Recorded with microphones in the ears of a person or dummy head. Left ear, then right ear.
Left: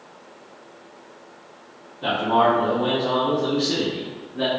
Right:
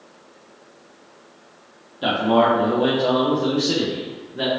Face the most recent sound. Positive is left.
turn(degrees=-10)  # may be behind; listen again after turning